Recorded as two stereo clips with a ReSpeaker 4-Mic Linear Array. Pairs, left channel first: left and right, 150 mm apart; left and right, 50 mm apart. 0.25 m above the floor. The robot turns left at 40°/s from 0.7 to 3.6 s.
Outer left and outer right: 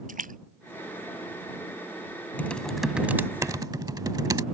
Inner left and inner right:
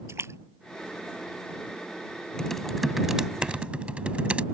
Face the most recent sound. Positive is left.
turn(degrees=-35)